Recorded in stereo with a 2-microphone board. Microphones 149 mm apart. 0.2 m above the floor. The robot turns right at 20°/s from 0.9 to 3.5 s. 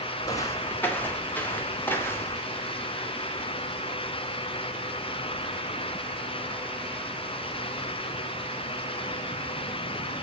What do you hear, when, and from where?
0.2 s footsteps: 25° left (ahead or behind), 3 m; by 2.4 s 15° left (ahead or behind), 3.5 m